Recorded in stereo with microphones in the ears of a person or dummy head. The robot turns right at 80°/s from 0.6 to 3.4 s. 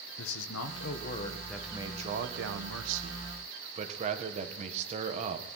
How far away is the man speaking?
About 1.6 m.